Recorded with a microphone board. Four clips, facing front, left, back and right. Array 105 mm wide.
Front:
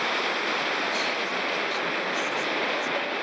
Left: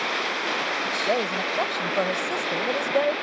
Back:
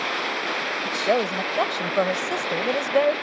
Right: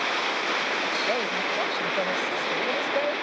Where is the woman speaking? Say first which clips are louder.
Left 2 dB, back 6 dB; 160° left.